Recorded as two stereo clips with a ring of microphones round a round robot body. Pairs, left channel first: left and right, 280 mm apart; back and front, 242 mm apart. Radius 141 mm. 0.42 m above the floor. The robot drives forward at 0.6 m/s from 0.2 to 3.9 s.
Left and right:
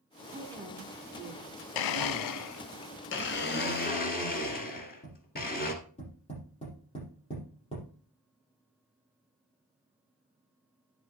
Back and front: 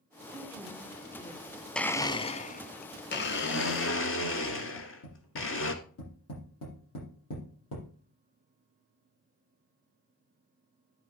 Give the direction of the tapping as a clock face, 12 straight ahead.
7 o'clock.